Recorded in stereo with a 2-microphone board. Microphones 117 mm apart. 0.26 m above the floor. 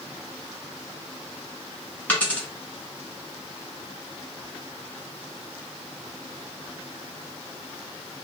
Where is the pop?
I don't hear a pop.